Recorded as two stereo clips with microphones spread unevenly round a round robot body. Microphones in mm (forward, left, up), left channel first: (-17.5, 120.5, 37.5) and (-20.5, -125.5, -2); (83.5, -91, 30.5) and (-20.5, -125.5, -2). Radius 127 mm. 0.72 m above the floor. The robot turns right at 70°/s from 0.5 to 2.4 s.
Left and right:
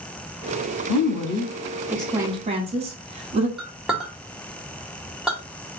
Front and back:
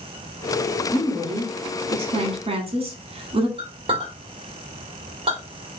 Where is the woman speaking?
100° left, 1.5 m; by 3.5 s 150° right, 1.5 m.